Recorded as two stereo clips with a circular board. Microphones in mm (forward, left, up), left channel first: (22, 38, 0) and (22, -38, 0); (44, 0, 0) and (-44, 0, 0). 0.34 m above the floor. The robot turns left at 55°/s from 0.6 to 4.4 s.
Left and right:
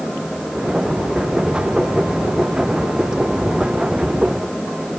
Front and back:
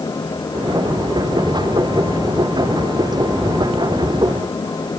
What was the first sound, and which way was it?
Only background noise.